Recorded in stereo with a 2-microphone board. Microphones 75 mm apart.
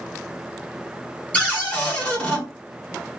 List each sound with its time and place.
1.3 s a cupboard door: 20° left (ahead or behind), 1.3 m